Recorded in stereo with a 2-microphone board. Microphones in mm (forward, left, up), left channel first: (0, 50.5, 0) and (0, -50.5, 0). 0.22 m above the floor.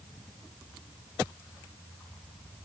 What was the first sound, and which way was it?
Only background noise.